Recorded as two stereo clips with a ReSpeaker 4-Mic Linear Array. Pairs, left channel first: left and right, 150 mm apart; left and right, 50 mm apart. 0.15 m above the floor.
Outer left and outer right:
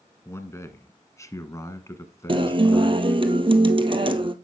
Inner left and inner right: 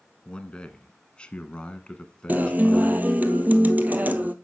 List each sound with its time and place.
0.2 s a man speaking: 20° left (ahead or behind), 1.2 m; by 3.2 s 15° left (ahead or behind), 1.3 m
2.3 s a guitar: 35° right (ahead or behind), 0.8 m